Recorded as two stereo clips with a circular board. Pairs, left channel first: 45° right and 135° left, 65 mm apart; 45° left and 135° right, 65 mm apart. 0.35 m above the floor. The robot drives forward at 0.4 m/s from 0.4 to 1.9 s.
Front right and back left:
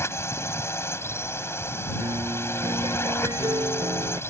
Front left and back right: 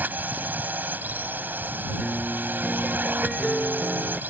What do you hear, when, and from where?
0.0 s a drone: 80° right
2.0 s a piano: 135° left